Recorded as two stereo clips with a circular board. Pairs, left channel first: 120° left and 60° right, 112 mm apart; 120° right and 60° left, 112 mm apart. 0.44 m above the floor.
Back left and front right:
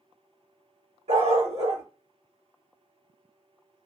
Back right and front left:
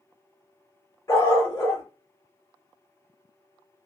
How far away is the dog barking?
About 1.5 m.